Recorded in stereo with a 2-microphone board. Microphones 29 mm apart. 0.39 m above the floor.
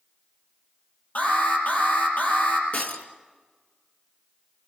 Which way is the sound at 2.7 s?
60° left (ahead or behind).